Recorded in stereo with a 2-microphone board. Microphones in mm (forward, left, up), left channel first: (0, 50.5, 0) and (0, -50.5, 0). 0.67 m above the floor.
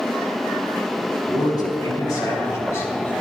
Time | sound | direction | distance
1.3 | a man speaking | 45° left (ahead or behind) | 4 m